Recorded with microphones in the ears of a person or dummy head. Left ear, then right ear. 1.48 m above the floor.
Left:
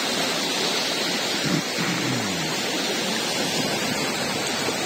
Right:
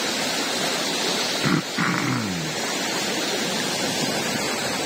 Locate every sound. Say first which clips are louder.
1.4 s throat clearing: right 1 dB; 40° right (ahead or behind)